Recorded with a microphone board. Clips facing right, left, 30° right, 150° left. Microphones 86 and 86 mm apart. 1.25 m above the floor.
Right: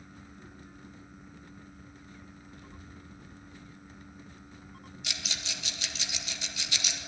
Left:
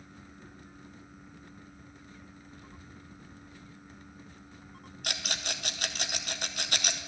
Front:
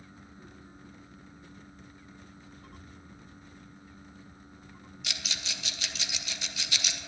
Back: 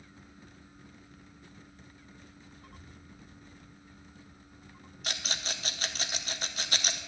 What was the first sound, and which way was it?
A child speaking, 70° right.